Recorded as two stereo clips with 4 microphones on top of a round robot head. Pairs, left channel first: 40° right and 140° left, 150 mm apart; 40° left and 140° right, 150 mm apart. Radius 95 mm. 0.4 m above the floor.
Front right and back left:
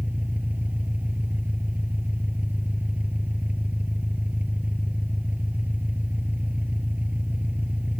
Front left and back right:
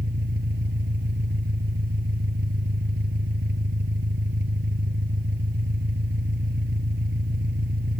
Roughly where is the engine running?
Behind right.